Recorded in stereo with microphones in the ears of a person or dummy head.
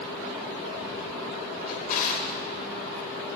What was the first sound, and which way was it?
A drawer, 45° left (ahead or behind).